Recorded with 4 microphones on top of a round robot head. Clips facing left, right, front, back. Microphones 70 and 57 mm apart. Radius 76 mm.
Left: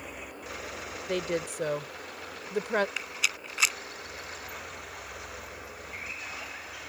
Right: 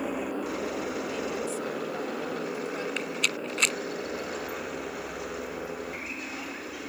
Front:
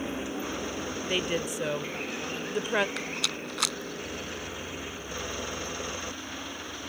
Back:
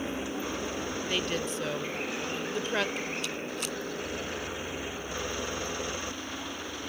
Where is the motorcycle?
90° right; by 6.9 s 105° right.